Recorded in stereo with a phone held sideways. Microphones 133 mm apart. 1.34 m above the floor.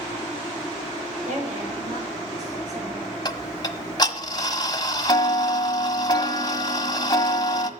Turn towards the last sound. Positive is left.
turn(degrees=30)  # may be behind; listen again after turning